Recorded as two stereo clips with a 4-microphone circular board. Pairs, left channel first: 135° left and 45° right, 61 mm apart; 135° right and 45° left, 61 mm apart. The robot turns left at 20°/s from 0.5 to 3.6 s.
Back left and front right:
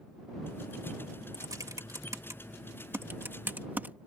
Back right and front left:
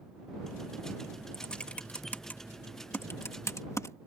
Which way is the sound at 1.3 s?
60° right.